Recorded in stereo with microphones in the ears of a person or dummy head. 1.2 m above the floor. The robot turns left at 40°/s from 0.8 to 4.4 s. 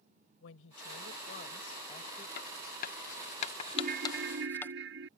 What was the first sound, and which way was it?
A woman speaking, 80° left.